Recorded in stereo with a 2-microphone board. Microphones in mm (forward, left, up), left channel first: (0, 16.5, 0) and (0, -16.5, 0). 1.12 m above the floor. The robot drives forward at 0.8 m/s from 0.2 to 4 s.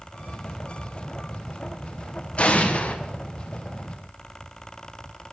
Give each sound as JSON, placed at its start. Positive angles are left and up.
{"t": 2.4, "sound": "an explosion", "side_deg": 40, "distance_m": 0.7}